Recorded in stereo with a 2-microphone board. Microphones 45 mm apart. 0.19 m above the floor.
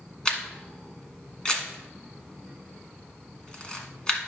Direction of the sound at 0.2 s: 20° left (ahead or behind).